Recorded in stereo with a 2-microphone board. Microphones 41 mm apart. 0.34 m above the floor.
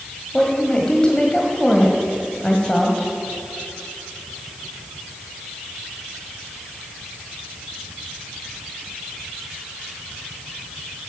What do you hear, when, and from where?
0.3 s a woman speaking: 20° left (ahead or behind), 1.5 m